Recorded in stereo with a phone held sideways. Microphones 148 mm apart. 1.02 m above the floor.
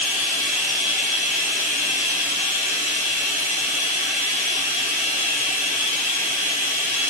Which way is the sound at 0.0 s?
70° right (ahead or behind).